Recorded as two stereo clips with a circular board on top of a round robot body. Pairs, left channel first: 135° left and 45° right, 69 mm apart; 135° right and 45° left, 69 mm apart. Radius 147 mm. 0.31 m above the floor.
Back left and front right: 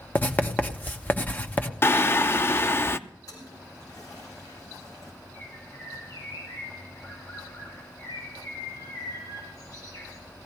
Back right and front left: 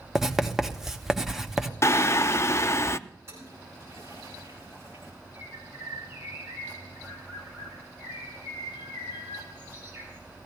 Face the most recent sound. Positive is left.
turn(degrees=105)